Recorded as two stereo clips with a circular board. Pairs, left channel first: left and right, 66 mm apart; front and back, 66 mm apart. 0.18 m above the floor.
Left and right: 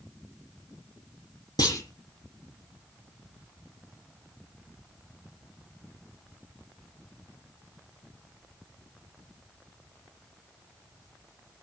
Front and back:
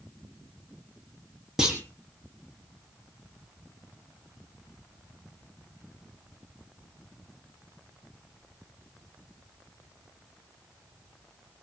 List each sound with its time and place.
1.6 s a clunk: 95° left, 5.5 m